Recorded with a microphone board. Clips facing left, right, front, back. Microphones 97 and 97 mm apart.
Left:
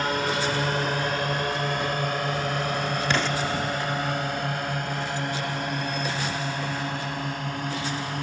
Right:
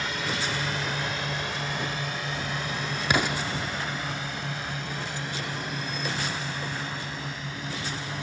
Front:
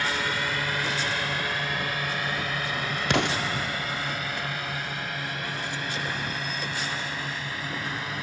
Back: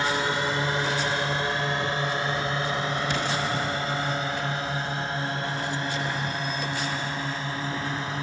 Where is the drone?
115° left; by 8.2 s 120° left.